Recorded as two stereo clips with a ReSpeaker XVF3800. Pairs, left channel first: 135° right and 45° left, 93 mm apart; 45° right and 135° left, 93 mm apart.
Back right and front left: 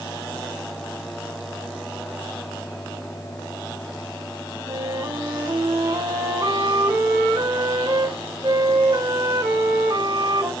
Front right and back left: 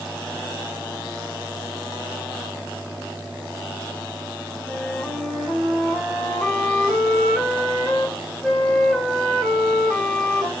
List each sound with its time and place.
4.7 s a flute: 35° left, 2 m